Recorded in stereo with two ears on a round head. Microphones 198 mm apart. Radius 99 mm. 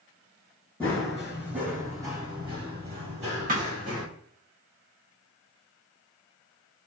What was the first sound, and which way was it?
Running footsteps, 10° left (ahead or behind).